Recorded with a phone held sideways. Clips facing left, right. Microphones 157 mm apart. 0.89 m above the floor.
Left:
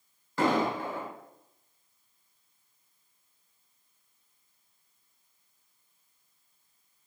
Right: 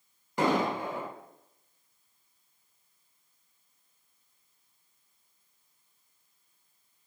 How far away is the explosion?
About 1.1 m.